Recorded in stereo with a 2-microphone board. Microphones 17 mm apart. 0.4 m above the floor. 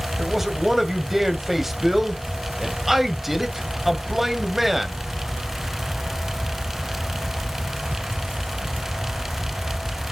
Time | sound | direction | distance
0.2 | a man speaking | 15° right (ahead or behind) | 2 m